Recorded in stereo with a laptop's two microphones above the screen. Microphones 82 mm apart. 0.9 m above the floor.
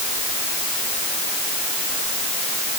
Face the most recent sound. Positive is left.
No sound to turn to.